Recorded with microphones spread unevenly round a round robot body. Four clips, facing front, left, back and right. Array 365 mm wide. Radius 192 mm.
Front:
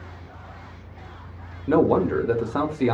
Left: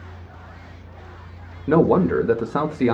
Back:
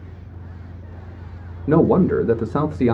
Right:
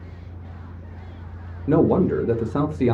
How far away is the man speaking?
About 1.2 m.